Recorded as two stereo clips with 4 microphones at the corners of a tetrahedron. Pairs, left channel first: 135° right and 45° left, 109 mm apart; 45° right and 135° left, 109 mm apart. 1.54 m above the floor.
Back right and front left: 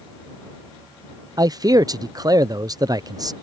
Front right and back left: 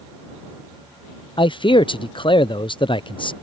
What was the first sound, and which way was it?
A man speaking, 5° right.